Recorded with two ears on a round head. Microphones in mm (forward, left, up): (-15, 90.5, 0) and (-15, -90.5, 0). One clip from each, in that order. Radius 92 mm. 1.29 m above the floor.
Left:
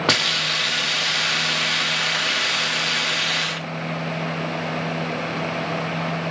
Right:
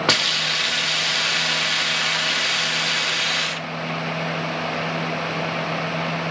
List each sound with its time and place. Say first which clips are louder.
0.1 s a hiss: even; 10° right (ahead or behind), 0.5 m